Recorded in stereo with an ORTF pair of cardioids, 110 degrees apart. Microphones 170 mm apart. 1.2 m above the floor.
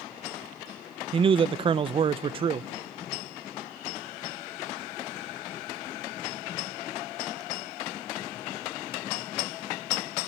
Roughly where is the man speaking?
Ahead right.